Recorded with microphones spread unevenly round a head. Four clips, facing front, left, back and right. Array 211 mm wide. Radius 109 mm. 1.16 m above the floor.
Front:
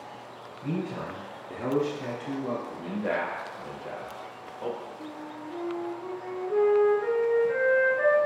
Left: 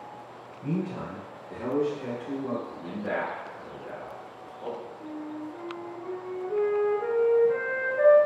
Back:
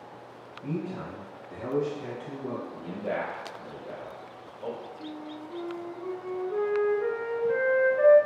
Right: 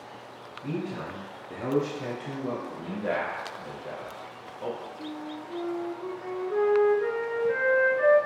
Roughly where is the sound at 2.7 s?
Ahead right.